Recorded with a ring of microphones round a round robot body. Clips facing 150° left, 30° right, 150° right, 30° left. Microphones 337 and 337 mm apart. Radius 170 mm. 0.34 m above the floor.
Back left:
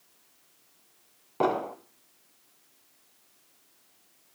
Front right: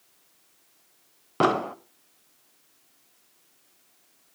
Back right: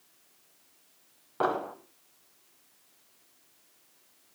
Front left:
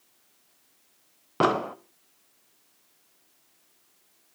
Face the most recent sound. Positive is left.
turn(degrees=15)